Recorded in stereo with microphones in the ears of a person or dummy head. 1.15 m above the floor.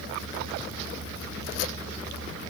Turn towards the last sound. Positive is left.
No sound to turn to.